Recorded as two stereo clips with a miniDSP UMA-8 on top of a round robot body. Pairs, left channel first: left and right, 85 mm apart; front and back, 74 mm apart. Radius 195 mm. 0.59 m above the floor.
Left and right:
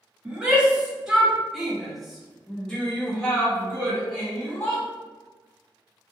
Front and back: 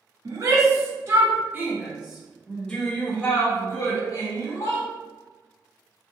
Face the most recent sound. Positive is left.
turn(degrees=20)